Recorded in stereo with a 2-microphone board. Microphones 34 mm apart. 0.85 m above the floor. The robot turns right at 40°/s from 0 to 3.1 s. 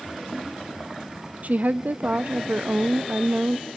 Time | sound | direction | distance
1.4 | a woman speaking | 120° right | 0.5 m